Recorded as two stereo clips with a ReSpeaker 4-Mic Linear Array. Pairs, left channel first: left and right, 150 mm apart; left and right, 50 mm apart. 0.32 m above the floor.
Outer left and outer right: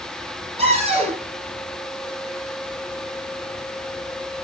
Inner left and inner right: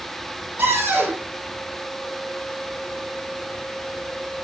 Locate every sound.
0.6 s a cupboard door: 45° right (ahead or behind), 8.5 m